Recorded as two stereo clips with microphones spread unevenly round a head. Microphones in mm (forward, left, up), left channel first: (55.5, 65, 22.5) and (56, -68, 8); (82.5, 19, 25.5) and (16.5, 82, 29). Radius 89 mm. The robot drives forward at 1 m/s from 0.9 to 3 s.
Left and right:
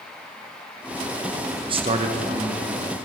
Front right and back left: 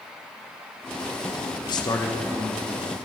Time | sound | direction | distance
1.7 | a man speaking | 55° right | 0.6 m